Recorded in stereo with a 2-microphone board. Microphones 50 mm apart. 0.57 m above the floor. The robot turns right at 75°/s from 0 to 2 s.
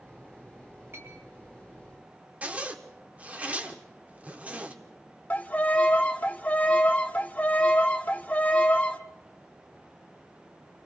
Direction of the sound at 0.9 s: 45° right (ahead or behind).